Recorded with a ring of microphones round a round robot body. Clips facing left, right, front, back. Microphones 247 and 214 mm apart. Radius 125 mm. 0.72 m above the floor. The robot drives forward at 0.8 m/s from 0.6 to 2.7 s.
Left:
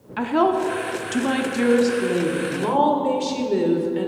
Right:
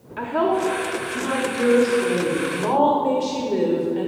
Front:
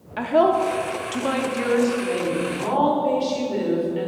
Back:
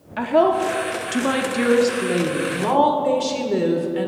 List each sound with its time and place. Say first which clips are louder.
0.2 s a woman speaking: left 2 dB, back 1 dB; 90° left, 0.9 m; by 4.1 s 155° left, 1.9 m